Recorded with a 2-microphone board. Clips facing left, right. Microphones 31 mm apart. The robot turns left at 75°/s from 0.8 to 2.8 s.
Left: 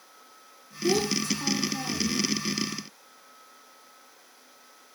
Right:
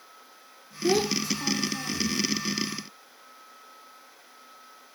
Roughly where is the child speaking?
Behind right.